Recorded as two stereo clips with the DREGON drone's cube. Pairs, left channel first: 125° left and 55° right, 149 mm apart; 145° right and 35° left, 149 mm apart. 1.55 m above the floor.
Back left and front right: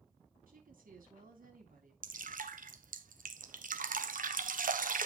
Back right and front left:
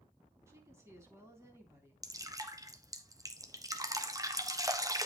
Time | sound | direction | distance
0.5 | a woman speaking | 35° right | 3.5 m
2.0 | dripping | 35° right | 1.1 m